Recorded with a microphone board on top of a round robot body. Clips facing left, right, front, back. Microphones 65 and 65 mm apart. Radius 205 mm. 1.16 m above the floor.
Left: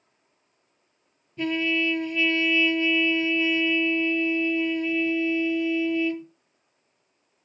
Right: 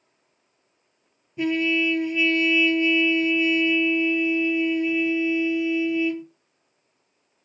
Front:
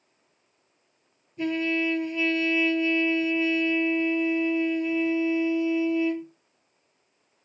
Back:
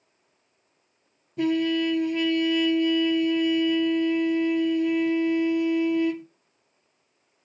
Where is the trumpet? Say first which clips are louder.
Right 3 dB, back 3 dB; 165° right, 1.3 m.